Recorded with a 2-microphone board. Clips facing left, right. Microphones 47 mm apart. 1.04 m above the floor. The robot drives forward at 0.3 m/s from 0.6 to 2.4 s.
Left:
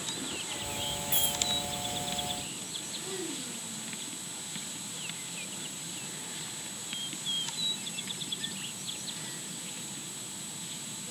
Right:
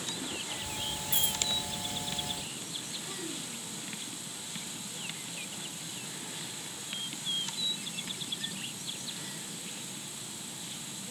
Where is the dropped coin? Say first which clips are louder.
Even; 85° left, 7.5 m.